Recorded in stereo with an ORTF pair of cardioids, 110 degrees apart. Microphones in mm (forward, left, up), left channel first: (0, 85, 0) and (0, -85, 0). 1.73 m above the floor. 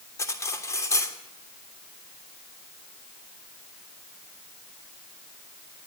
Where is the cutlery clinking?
20° left, 3 m.